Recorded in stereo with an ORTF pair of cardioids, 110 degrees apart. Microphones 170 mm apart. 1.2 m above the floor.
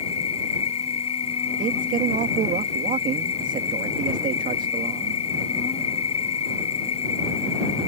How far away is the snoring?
No snoring in this recording.